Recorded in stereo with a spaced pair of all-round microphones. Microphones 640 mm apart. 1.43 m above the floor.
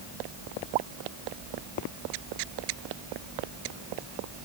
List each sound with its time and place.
Only background noise.